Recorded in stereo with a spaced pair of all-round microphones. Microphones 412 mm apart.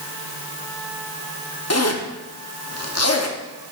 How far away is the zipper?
About 0.8 m.